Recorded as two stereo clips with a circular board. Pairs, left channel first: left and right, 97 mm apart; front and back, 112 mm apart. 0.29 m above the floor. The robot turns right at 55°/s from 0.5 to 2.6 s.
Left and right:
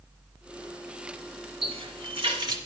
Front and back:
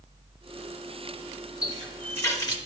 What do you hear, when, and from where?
1.6 s a running tap: 100° right, 2.5 m; by 2.6 s 45° right, 2.5 m